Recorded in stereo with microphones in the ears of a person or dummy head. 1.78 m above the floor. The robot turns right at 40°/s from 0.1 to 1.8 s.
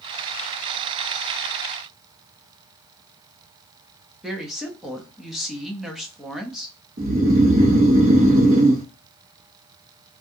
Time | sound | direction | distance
4.2 | a woman speaking | 5° right (ahead or behind) | 0.6 m
7.0 | snoring | 45° right (ahead or behind) | 0.7 m